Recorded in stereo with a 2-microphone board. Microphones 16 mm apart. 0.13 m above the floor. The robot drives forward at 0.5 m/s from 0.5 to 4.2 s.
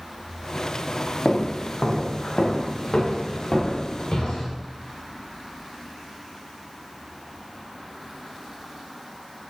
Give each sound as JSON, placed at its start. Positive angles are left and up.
{"t": 1.2, "sound": "footsteps", "side_deg": 80, "distance_m": 1.5}